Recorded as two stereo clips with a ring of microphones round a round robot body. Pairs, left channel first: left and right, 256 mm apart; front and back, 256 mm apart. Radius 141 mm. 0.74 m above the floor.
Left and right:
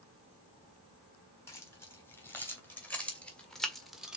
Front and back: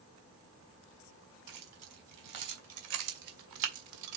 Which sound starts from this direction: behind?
Keys jangling, at 1.5 s.